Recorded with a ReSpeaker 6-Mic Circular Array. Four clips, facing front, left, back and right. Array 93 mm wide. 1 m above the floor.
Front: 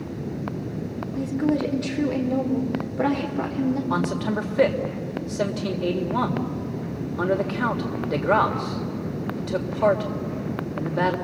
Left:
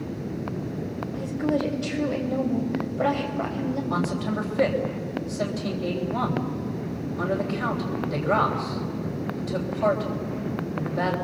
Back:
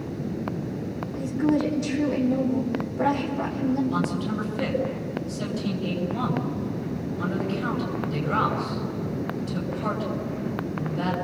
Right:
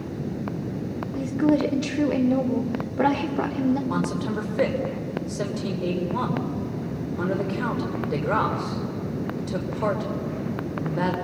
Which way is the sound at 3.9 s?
15° right.